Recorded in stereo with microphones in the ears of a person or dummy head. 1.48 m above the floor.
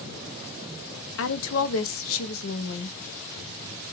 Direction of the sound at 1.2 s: 70° left (ahead or behind).